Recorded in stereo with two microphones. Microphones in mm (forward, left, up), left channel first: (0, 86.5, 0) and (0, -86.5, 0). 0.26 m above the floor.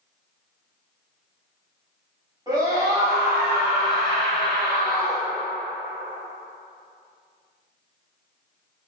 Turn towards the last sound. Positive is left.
turn(degrees=15)  # may be behind; listen again after turning